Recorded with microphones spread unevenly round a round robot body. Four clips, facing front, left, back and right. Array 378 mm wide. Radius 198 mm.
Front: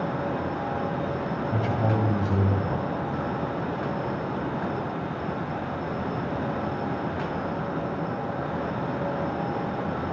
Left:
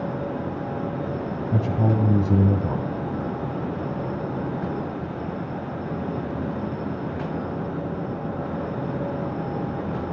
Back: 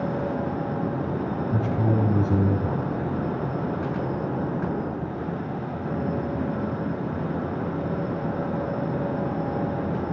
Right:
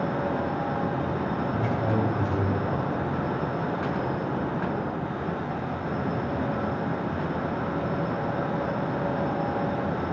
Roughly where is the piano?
I don't hear a piano.